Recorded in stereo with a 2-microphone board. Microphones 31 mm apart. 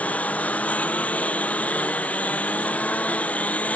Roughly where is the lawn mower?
Left.